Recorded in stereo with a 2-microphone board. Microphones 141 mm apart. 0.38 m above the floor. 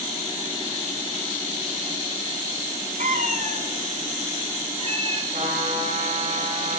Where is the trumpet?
60° right (ahead or behind), 9 m.